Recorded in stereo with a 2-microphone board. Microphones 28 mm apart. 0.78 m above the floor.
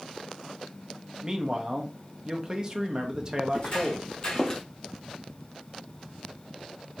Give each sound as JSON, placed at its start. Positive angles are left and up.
{"t": 1.2, "sound": "a man speaking", "side_deg": -25, "distance_m": 0.5}
{"t": 3.5, "sound": "footsteps", "side_deg": 40, "distance_m": 1.6}